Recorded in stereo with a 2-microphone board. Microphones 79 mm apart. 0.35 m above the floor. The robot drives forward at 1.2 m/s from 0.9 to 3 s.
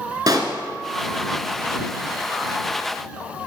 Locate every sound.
0.3 s a pop: 55° right (ahead or behind), 0.9 m